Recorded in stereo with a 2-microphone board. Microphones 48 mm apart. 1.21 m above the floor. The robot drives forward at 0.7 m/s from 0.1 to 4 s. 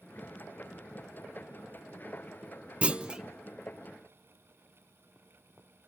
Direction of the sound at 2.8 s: 25° right (ahead or behind).